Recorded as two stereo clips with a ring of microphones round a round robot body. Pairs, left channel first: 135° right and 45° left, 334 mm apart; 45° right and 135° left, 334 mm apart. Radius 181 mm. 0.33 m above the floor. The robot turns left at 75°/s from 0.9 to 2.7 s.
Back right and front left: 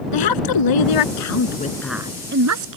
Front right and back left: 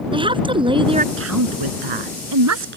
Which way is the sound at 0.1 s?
150° right.